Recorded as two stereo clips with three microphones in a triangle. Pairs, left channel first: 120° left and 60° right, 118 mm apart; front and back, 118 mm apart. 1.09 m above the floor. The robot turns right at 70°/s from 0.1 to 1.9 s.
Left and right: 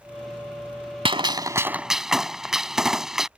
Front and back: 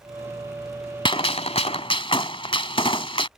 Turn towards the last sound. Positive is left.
turn(degrees=25)